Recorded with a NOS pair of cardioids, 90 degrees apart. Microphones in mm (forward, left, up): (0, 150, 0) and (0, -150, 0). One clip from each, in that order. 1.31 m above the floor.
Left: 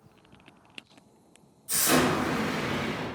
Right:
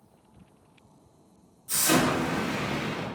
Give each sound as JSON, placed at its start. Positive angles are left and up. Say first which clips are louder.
{"t": 1.7, "sound": "an explosion", "louder": "even", "azimuth_deg": 5, "distance_m": 1.2}